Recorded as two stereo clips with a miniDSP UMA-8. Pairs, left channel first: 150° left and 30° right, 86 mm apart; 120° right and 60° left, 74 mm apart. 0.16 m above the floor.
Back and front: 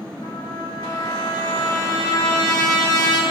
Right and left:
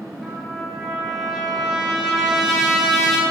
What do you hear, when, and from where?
0.2 s a trumpet: 145° left, 2.5 m